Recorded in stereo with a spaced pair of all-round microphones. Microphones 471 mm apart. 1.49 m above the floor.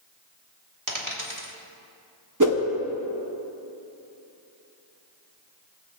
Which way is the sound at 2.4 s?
40° right (ahead or behind).